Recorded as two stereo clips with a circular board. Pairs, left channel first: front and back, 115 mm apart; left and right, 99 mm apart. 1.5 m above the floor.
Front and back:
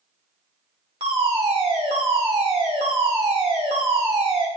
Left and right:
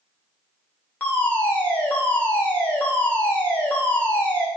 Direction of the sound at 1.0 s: 160° left.